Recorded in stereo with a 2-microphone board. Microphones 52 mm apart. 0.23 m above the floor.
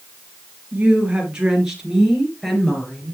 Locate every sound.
0.7 s a woman speaking: 30° right (ahead or behind), 4.5 m; by 3.1 s 10° left (ahead or behind), 4.5 m